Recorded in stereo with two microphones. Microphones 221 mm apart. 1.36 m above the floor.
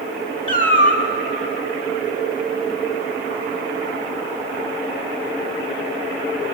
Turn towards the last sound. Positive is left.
turn(degrees=-35)  # may be behind; listen again after turning